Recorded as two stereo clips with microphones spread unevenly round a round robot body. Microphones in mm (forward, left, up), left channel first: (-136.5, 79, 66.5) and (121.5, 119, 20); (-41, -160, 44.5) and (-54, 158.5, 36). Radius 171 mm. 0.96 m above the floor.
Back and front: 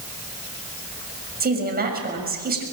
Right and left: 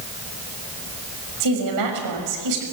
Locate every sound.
1.4 s a woman speaking: 60° left, 6 m